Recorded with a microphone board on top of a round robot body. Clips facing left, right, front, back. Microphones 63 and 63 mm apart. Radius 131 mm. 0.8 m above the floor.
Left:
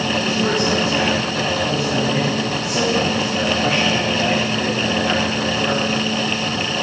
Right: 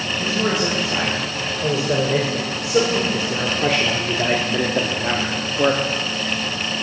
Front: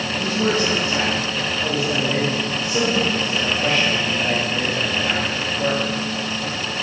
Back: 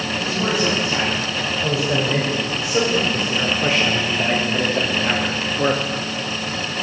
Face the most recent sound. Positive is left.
turn(degrees=-120)